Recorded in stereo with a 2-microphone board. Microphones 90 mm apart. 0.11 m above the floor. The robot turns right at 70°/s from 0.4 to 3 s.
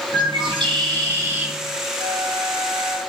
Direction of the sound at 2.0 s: 105° right.